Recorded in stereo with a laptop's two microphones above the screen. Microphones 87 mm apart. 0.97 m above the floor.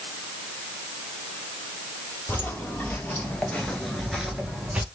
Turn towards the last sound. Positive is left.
turn(degrees=-15)  # may be behind; listen again after turning